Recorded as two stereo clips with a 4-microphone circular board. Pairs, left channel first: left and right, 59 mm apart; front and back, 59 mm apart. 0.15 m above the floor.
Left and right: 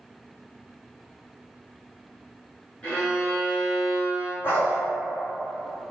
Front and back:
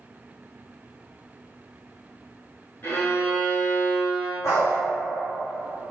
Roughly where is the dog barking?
Ahead left.